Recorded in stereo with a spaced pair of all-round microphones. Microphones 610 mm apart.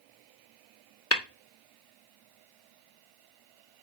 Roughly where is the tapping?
Left.